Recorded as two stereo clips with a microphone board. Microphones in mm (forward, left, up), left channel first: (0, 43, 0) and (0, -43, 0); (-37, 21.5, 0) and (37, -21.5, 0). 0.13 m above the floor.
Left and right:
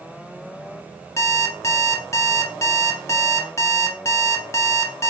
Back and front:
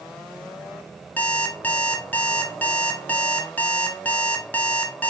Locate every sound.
1.2 s an alarm clock: 90° left, 0.8 m